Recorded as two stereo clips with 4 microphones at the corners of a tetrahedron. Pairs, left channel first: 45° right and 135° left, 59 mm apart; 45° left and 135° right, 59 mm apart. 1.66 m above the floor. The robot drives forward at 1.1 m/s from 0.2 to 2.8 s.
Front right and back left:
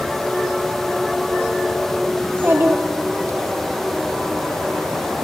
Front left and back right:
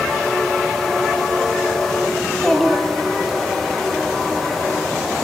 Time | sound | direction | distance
2.2 | a child speaking | 80° left | 0.7 m